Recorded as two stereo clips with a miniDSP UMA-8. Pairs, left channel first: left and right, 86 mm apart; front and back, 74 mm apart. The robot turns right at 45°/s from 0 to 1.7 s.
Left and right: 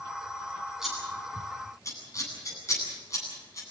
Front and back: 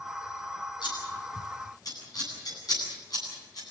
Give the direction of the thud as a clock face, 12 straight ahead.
No thud in this recording.